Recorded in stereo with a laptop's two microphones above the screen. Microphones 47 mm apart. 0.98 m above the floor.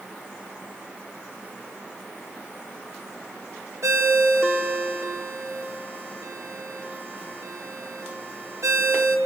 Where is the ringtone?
75° right (ahead or behind), 1.9 m.